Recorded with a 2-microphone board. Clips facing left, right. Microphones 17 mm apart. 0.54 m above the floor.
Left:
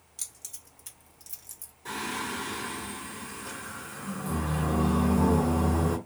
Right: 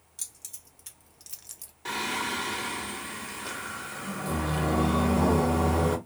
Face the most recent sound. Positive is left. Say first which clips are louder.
# right 3 dB
turn(degrees=-45)  # may be behind; listen again after turning